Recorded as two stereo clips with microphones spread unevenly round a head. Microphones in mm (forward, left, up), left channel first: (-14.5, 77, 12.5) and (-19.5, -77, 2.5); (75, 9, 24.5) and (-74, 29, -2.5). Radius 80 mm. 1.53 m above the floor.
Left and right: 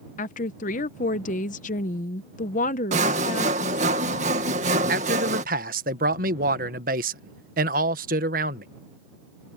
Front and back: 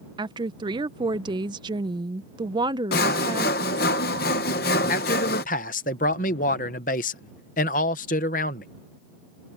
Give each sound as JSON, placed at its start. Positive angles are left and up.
{"t": 0.2, "sound": "a woman speaking", "azimuth_deg": 110}
{"t": 2.9, "sound": "sawing", "azimuth_deg": -40}
{"t": 4.9, "sound": "a man speaking", "azimuth_deg": -50}